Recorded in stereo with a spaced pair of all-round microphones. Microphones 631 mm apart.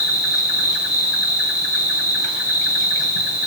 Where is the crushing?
I don't hear crushing.